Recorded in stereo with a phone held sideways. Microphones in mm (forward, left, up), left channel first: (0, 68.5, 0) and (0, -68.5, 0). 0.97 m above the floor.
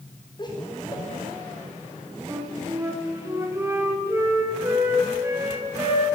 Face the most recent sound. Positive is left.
turn(degrees=-20)  # may be behind; listen again after turning